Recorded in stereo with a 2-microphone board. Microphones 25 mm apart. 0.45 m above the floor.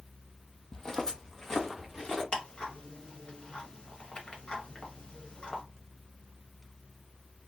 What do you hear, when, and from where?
0.7 s footsteps: 25° left (ahead or behind), 0.5 m; by 2.2 s 15° left (ahead or behind), 1.6 m
2.3 s ticking: 40° left (ahead or behind), 0.9 m